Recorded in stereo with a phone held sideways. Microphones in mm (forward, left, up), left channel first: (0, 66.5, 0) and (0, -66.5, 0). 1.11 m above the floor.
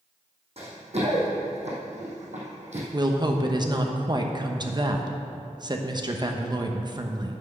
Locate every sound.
0.6 s running footsteps: 50° right (ahead or behind), 2.5 m; by 2.8 s 60° right (ahead or behind), 2 m
2.9 s a woman speaking: 35° right (ahead or behind), 0.8 m